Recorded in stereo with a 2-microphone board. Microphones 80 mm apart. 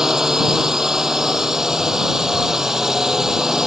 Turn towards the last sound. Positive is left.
turn(degrees=-5)  # may be behind; listen again after turning